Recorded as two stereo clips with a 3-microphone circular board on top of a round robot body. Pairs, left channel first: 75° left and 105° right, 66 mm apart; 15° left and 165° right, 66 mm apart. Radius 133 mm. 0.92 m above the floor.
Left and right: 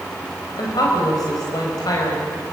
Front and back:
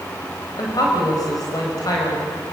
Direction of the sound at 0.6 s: 45° left.